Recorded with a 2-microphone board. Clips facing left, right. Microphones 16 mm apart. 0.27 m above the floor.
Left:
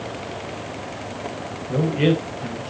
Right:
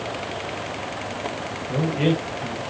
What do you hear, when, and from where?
1.7 s a man speaking: 20° left (ahead or behind), 1.3 m